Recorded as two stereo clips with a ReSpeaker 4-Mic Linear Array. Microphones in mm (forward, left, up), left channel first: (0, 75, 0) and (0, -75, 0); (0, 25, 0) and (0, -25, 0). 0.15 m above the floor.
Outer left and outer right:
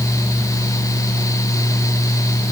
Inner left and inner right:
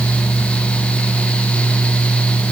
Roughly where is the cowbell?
No cowbell in this recording.